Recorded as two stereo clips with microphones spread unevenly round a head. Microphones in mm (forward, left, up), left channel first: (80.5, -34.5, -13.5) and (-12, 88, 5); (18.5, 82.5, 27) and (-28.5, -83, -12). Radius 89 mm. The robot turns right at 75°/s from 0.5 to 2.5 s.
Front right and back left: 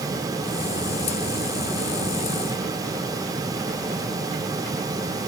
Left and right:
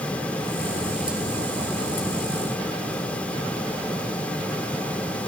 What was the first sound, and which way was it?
Only background noise.